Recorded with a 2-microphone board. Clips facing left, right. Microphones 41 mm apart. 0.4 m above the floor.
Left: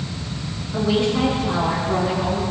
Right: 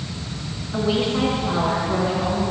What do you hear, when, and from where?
0.7 s a woman speaking: 20° right (ahead or behind), 5.5 m; by 2.4 s 10° right (ahead or behind), 6 m